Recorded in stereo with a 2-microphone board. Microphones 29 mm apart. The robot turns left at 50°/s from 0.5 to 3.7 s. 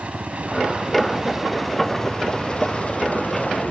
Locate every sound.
0.0 s a helicopter: 125° right; by 3.7 s 75° left